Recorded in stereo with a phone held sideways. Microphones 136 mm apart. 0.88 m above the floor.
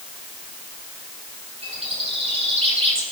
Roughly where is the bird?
Right.